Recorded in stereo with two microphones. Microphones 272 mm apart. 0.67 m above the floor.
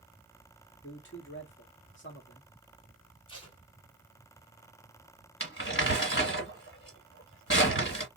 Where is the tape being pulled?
20° left (ahead or behind), 1.9 m.